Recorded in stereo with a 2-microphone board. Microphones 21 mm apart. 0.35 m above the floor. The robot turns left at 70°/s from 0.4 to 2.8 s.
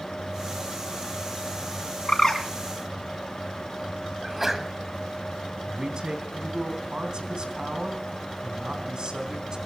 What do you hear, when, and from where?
2.1 s a bird: 35° left (ahead or behind), 3 m; by 2.4 s 15° left (ahead or behind), 3 m
4.2 s a sneeze: 15° right (ahead or behind), 2 m
5.7 s a man speaking: 45° right (ahead or behind), 3 m